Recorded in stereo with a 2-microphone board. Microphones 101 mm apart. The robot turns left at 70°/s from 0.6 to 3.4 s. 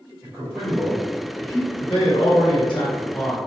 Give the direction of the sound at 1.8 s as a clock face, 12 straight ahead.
8 o'clock.